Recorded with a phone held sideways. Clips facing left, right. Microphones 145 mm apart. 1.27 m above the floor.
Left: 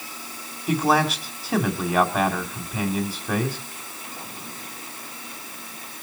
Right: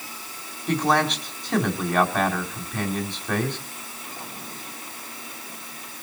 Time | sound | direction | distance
0.7 | a man speaking | 5° left (ahead or behind) | 3 m